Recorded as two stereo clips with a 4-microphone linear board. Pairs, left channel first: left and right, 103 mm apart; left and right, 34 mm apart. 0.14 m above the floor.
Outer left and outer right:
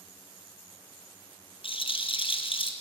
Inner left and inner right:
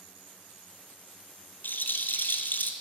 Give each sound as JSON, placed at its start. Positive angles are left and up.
{"t": 1.6, "sound": "a rattle", "side_deg": 65, "distance_m": 1.0}